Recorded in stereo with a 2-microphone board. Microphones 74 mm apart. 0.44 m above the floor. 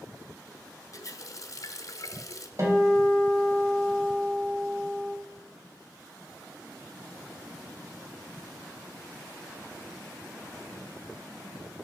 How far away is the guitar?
About 3 m.